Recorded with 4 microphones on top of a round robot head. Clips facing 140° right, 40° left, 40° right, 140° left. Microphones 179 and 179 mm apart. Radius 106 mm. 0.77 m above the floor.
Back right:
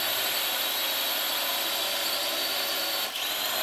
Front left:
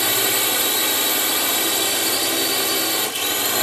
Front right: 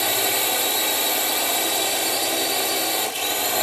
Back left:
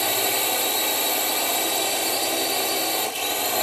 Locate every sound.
0.0 s a drone: 50° left